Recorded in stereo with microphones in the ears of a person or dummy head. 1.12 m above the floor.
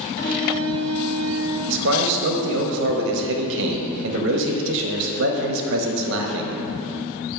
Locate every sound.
0.2 s a violin: 55° left (ahead or behind), 1.1 m
1.7 s a man speaking: 65° right (ahead or behind), 0.7 m